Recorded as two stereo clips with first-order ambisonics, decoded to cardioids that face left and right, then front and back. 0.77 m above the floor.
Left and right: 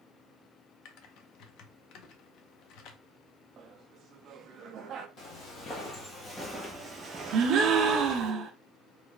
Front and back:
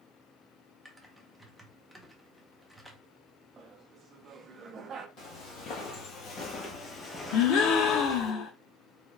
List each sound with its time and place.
0.8 s typing on a keyboard: 90° left, 0.6 m
3.6 s laughter: 130° right, 0.5 m
5.2 s footsteps: 45° left, 1.3 m; by 8.3 s 95° right, 1.0 m
7.3 s a gasp: 40° right, 0.5 m